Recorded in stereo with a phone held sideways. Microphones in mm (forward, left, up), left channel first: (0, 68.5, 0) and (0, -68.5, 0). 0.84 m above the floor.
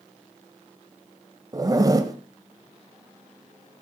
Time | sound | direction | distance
1.5 | a zipper | 25° right (ahead or behind) | 1.3 m